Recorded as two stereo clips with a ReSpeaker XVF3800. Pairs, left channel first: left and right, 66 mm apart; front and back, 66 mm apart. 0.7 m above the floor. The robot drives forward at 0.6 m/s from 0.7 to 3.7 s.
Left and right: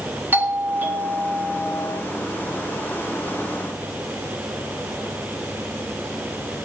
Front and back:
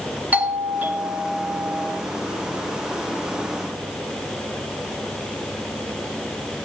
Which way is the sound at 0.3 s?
130° right.